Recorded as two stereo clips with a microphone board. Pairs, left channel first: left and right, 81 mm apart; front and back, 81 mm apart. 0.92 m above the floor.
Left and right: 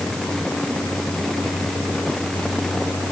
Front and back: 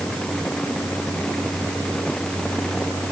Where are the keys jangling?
No keys jangling in this recording.